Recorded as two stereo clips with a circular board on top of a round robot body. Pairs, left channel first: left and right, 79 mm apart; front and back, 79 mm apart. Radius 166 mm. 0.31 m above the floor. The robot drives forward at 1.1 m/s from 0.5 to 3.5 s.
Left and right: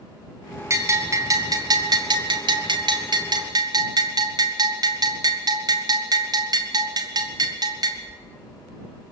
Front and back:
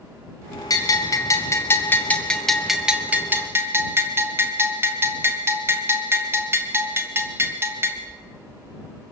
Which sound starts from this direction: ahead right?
A bell, at 0.7 s.